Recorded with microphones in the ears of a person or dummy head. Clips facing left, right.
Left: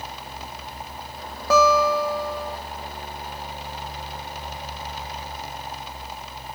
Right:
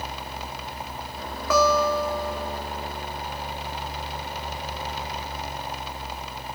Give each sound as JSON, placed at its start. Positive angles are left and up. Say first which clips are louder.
{"t": 1.5, "sound": "a guitar", "louder": "left 2 dB", "side_deg": 35, "distance_m": 2.0}